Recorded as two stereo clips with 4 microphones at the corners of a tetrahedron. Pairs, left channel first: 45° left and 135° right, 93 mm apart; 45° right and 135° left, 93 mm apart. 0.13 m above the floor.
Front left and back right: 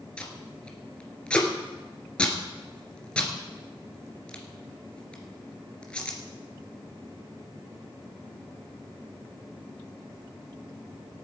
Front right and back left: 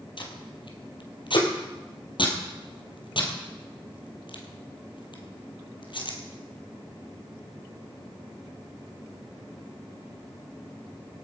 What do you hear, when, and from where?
0.2 s tape being pulled: 30° right, 2.5 m